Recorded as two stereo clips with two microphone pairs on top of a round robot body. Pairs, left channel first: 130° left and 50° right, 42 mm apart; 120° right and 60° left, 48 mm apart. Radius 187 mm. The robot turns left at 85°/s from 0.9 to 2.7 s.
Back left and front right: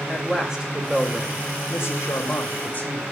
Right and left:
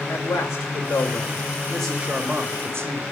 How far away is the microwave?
No microwave in this recording.